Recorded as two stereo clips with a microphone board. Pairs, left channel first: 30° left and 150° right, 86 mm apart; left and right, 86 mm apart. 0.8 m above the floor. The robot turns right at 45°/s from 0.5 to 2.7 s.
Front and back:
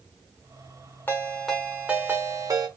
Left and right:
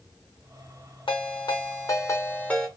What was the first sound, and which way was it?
A ringtone, 100° left.